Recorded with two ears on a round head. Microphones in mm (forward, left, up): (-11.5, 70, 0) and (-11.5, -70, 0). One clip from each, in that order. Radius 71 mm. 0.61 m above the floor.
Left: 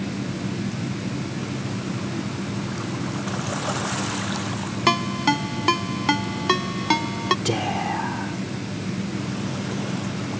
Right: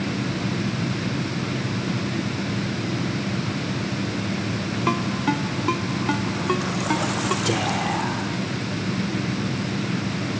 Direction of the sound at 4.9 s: 85° left.